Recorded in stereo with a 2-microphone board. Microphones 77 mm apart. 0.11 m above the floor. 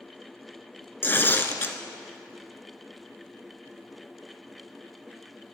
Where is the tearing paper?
30° left (ahead or behind), 0.8 m.